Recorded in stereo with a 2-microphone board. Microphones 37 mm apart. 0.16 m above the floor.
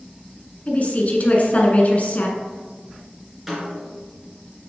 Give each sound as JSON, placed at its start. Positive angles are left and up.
{"t": 0.7, "sound": "a woman speaking", "side_deg": 45, "distance_m": 1.4}
{"t": 3.5, "sound": "a snare drum", "side_deg": -5, "distance_m": 2.5}